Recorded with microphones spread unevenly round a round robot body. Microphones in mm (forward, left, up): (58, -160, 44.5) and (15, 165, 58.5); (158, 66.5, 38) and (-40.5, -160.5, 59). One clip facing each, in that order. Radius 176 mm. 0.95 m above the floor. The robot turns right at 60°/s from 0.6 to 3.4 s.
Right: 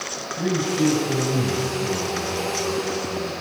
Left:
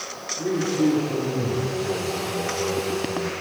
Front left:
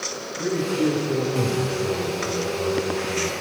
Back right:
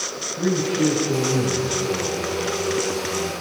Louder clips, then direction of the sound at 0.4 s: Even, back right 2 dB; 95° right.